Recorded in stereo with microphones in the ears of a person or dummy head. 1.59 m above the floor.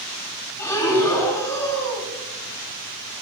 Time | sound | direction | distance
0.6 | breathing | 20° left (ahead or behind) | 2 m